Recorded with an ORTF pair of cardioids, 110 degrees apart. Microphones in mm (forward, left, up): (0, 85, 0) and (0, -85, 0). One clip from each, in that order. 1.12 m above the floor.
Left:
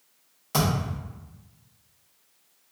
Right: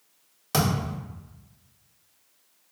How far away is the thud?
About 1.4 m.